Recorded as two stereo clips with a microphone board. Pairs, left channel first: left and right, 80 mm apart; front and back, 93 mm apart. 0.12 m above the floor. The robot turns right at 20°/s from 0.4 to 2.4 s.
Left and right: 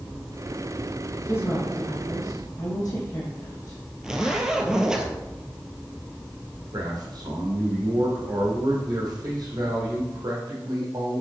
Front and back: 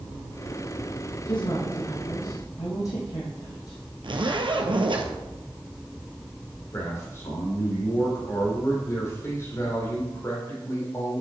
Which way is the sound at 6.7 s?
60° right.